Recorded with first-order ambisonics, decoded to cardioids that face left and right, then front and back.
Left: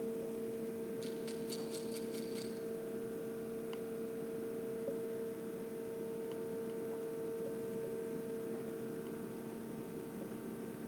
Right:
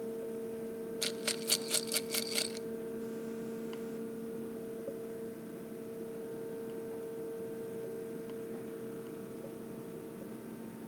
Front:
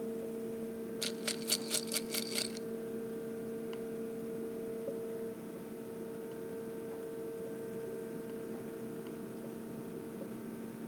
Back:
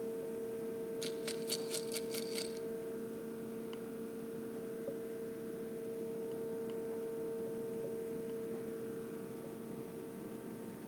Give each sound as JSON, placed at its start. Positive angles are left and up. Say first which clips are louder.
{"t": 1.0, "sound": "a rattle", "louder": "right 6 dB, front 5 dB", "azimuth_deg": -65, "distance_m": 0.8}